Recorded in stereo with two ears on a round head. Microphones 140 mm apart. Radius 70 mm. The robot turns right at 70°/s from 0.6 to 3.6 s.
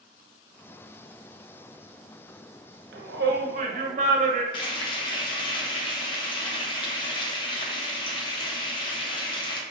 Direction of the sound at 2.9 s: 100° right.